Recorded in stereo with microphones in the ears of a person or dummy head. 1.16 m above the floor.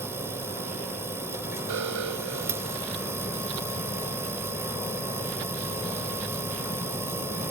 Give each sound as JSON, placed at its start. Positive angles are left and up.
{"t": 0.0, "sound": "a machine running", "side_deg": -15}
{"t": 1.7, "sound": "an alarm", "side_deg": -75}